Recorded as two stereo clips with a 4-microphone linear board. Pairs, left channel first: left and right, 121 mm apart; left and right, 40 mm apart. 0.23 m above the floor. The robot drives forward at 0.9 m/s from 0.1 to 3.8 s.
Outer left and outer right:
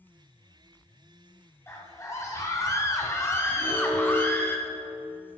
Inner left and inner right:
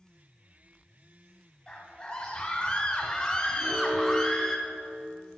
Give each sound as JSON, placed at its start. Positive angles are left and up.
{"t": 1.7, "sound": "a scream", "side_deg": 20, "distance_m": 1.4}
{"t": 3.6, "sound": "an alarm", "side_deg": 20, "distance_m": 4.5}